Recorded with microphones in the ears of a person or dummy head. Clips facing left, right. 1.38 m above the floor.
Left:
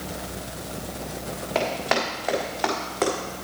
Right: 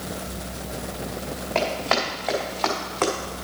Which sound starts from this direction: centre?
Running footsteps, at 1.6 s.